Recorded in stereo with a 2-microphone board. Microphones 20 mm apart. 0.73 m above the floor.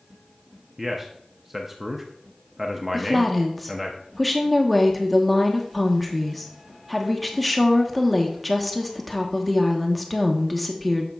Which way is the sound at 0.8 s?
10° right (ahead or behind).